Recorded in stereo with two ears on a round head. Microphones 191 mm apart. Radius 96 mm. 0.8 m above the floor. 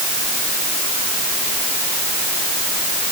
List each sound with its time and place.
Only background noise.